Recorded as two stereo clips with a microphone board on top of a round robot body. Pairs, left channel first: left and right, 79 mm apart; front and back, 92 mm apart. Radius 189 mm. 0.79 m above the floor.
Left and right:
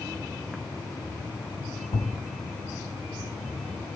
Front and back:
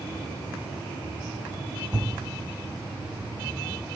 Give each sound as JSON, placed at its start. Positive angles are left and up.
{"t": 1.9, "sound": "a thud", "azimuth_deg": 100, "distance_m": 1.6}